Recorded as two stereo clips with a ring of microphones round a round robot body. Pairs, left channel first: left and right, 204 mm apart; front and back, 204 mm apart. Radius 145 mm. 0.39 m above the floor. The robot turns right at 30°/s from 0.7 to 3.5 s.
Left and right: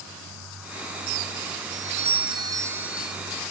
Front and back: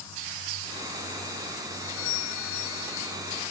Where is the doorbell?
45° right; by 3.2 s straight ahead.